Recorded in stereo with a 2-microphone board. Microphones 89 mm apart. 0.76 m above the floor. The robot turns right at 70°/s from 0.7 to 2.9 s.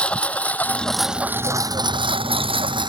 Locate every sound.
0.0 s a lawn mower: 15° left (ahead or behind); by 2.9 s 55° right (ahead or behind)